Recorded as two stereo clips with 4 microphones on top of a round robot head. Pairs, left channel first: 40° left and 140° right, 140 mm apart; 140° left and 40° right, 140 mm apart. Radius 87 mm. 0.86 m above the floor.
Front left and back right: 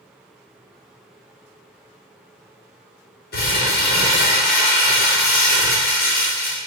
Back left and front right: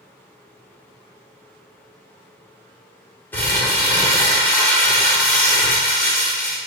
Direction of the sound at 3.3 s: 60° left.